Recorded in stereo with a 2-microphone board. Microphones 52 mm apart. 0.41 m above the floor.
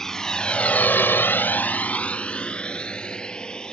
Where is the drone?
10° left (ahead or behind); by 3.7 s 15° left (ahead or behind).